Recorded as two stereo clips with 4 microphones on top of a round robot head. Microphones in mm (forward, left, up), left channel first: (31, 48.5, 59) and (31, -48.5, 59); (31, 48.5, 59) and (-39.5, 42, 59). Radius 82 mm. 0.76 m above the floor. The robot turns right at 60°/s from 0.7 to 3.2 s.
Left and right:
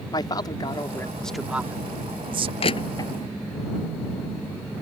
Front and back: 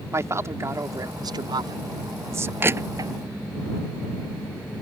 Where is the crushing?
125° left; by 3.1 s 155° left.